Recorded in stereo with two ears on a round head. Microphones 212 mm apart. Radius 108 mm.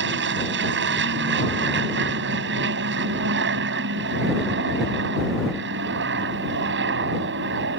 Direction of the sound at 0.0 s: 50° right (ahead or behind).